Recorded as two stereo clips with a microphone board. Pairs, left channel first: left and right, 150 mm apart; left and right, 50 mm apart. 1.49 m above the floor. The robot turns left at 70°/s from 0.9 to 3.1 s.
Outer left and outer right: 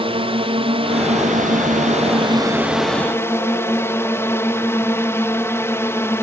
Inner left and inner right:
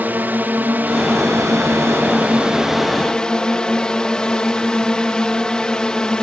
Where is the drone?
45° right; by 6.2 s 160° left.